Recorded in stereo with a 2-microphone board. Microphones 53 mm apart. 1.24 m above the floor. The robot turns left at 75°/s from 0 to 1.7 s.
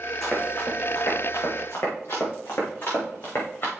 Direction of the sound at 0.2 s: 5° left (ahead or behind).